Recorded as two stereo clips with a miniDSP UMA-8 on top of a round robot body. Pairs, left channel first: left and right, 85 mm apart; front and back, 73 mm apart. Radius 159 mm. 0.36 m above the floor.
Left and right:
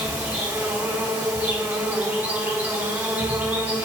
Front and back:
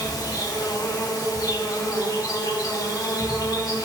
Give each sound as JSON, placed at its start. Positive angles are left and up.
{"t": 0.0, "sound": "an insect", "azimuth_deg": -25, "distance_m": 4.5}